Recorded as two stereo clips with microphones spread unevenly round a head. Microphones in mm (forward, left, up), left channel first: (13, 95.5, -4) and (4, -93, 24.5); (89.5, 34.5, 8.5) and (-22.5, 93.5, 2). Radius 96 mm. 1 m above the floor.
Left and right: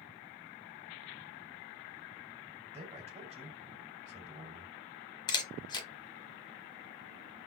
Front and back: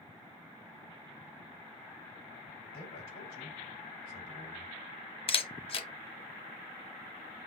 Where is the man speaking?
35° right, 4 m.